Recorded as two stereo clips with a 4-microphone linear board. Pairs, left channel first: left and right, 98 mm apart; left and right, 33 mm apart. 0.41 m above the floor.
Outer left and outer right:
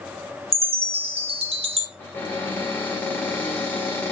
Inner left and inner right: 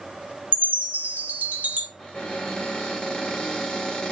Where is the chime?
75° right (ahead or behind), 0.9 m.